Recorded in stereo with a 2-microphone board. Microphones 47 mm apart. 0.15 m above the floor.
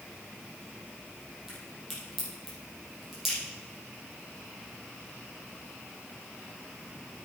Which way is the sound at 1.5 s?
5° right (ahead or behind).